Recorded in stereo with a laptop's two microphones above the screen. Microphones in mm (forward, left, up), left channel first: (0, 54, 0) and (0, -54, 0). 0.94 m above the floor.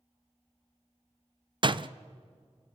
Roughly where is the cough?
I don't hear a cough.